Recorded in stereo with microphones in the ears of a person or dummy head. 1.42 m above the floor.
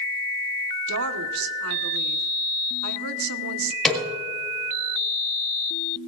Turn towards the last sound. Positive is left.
turn(degrees=5)  # may be behind; listen again after turning